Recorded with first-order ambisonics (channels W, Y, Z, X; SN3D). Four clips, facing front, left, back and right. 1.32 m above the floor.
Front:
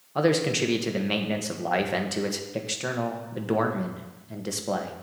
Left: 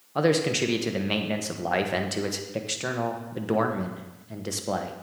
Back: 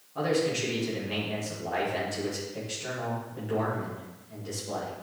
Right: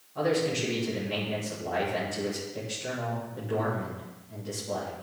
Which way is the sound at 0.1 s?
50° left.